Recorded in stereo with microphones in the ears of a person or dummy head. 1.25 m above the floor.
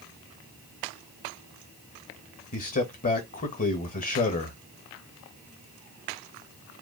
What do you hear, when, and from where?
2.5 s a man speaking: 40° left (ahead or behind), 1.2 m